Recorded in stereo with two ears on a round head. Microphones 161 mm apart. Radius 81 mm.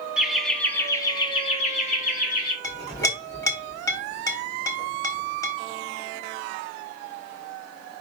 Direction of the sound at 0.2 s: 5° right (ahead or behind).